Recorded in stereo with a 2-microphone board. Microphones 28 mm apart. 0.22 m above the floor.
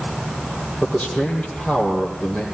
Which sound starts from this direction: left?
A man speaking, at 0.8 s.